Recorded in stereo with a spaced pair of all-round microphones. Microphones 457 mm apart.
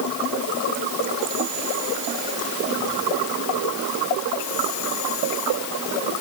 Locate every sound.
Only background noise.